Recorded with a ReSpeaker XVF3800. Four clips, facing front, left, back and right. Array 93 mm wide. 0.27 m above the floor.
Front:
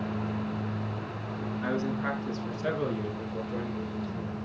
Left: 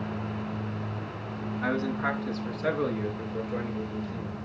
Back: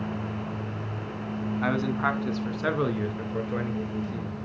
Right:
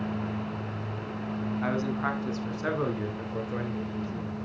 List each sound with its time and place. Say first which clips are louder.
1.6 s a man speaking: left 2 dB, back 4 dB; 170° right, 2.5 m; by 4.4 s 160° right, 4.5 m